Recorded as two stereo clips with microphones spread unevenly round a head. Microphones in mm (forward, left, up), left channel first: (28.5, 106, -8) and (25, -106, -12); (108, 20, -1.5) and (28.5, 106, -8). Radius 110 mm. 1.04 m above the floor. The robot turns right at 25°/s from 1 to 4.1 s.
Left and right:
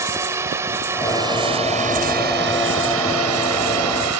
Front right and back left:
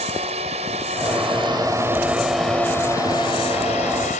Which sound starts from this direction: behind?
A drone, at 0.0 s.